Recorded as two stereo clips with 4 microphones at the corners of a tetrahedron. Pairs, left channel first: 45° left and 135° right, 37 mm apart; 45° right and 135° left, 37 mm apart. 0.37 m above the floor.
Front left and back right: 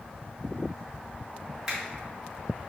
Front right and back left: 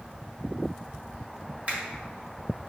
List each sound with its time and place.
1.7 s a finger snap: 150° left, 1.5 m